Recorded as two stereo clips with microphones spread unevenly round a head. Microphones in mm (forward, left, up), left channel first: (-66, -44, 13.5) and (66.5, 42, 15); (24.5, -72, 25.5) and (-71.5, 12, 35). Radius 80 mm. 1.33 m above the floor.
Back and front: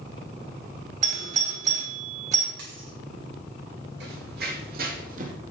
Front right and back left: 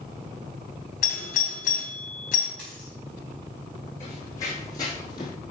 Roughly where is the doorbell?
Ahead.